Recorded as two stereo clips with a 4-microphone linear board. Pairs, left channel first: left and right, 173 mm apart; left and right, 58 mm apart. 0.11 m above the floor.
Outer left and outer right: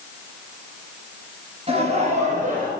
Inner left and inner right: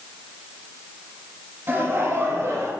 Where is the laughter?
35° right (ahead or behind), 2 m; by 2.7 s 45° right (ahead or behind), 2.5 m.